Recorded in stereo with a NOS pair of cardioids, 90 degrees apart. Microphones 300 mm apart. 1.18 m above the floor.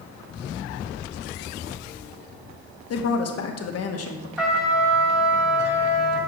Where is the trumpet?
5° right, 1.7 m.